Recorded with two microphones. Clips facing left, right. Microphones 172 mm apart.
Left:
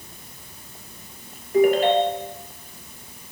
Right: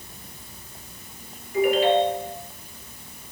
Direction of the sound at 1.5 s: 50° left (ahead or behind).